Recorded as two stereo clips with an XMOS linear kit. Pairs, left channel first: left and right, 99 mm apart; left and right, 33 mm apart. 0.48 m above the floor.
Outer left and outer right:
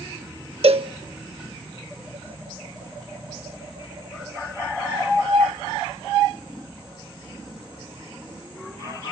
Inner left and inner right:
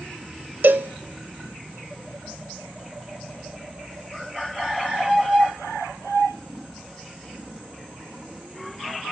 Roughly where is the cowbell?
Right.